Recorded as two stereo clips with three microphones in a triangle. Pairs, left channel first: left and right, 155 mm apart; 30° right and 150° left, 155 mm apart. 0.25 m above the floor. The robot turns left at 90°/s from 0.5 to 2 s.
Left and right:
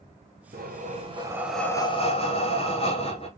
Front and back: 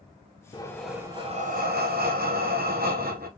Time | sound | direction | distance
0.5 | breathing | 90° right | 1.1 m